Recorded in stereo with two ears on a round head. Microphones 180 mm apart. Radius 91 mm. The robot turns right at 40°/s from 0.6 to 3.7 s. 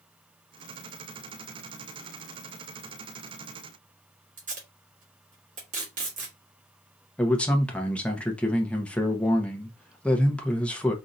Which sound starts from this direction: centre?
A man speaking, at 7.2 s.